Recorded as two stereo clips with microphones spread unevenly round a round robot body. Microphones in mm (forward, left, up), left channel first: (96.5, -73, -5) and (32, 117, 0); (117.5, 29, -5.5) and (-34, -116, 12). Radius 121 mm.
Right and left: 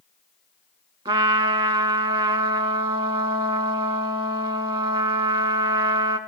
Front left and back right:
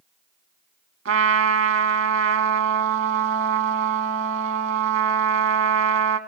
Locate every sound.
1.1 s a trumpet: straight behind, 0.7 m